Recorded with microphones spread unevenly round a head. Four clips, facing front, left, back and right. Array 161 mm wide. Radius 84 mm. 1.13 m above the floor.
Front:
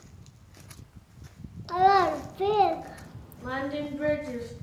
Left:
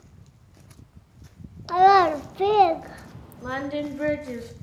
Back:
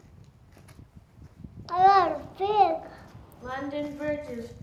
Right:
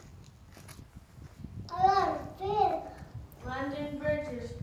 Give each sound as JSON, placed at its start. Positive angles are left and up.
{"t": 1.7, "sound": "a child speaking", "azimuth_deg": 70, "distance_m": 0.5}
{"t": 3.4, "sound": "singing", "azimuth_deg": 80, "distance_m": 1.5}